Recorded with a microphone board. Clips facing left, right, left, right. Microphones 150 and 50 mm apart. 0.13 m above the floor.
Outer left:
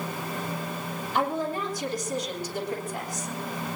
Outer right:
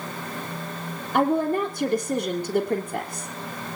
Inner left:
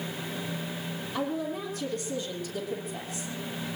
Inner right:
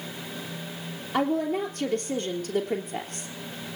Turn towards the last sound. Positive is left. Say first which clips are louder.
# outer right 7 dB, inner right 7 dB
turn(degrees=-55)  # may be behind; listen again after turning